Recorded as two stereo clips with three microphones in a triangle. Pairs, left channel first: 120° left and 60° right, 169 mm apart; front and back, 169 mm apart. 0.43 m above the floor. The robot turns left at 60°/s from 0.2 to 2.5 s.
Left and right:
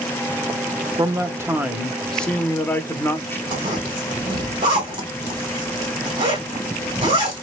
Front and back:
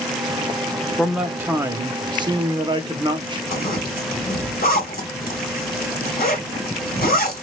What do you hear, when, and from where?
1.0 s a man speaking: 90° right, 0.8 m; by 3.4 s straight behind, 0.8 m
3.5 s a zipper: straight ahead, 2.5 m